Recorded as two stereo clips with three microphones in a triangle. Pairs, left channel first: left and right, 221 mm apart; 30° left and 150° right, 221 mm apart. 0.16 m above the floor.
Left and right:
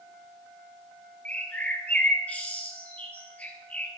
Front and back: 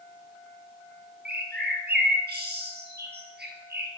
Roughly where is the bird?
Behind.